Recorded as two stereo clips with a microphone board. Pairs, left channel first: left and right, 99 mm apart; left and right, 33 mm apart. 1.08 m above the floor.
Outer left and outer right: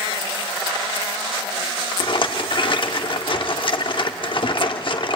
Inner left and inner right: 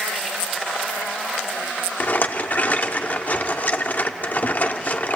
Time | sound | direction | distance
2.0 | a rattle | 60° left (ahead or behind) | 1.0 m